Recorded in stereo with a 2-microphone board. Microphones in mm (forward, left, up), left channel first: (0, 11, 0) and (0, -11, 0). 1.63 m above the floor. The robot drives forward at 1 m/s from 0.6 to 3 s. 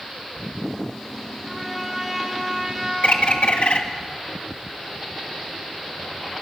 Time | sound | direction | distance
1.4 | a trumpet | 15° right (ahead or behind) | 5 m
3.0 | a bird | 60° left (ahead or behind) | 1.7 m